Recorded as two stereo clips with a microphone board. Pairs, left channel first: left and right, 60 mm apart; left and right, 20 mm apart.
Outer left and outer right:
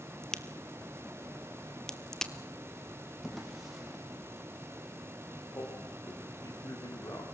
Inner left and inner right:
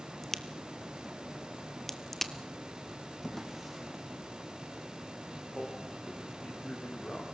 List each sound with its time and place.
0.2 s a crack: 10° left (ahead or behind), 1.2 m
3.2 s a drawer: 5° right (ahead or behind), 2.5 m
5.5 s a man speaking: 60° left (ahead or behind), 7.5 m